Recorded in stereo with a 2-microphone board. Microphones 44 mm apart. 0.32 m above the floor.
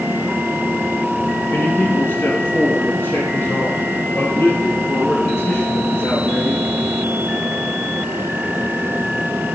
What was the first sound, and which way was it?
A man speaking, 65° left (ahead or behind).